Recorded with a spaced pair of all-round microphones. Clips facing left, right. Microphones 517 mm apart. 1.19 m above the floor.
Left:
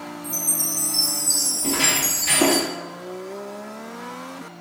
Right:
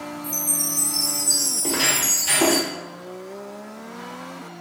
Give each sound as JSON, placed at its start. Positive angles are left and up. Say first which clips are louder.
{"t": 0.2, "sound": "a chime", "louder": "right 1 dB", "side_deg": -15, "distance_m": 0.6}
{"t": 1.6, "sound": "footsteps", "louder": "left 2 dB", "side_deg": 40, "distance_m": 1.8}